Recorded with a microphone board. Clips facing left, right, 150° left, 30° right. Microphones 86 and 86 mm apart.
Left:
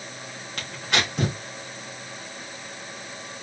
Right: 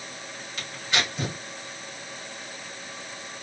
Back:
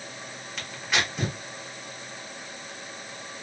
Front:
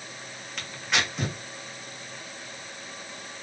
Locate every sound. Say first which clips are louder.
0.6 s tearing paper: left 2 dB, even; 60° left, 1.2 m